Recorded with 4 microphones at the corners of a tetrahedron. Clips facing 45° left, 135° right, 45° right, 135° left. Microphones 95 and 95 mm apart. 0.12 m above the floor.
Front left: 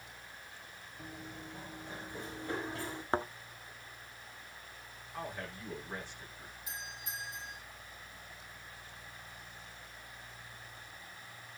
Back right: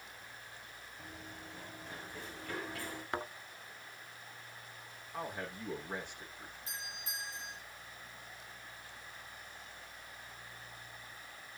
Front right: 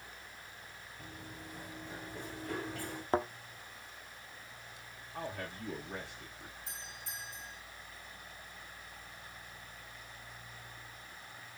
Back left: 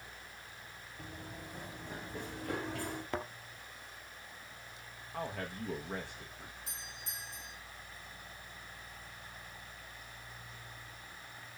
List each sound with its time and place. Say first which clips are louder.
1.0 s running footsteps: front left 4 dB, back left 2 dB; 120° left, 5 m; by 3.0 s 110° left, 5.5 m
3.1 s a thud: front left 6 dB, front right 9 dB; straight ahead, 0.9 m
5.1 s a man speaking: back right 1 dB, back left 2 dB; 150° left, 6.5 m
6.7 s a doorbell: front left 2 dB, front right 1 dB; 120° left, 6.5 m